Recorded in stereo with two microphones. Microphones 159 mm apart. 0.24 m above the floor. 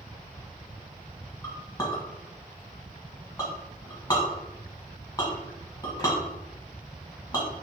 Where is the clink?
25° left (ahead or behind), 1.1 m.